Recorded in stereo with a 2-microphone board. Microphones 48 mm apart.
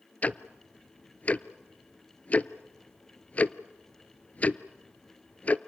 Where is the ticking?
35° left (ahead or behind), 0.6 m.